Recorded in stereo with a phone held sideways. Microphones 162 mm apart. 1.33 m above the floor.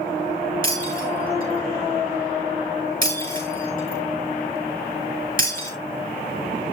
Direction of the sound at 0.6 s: 55° right (ahead or behind).